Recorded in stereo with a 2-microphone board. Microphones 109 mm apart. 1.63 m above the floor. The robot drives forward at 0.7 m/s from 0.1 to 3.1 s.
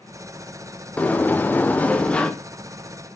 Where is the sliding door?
15° left (ahead or behind), 0.6 m; by 2.3 s 10° left (ahead or behind), 0.8 m.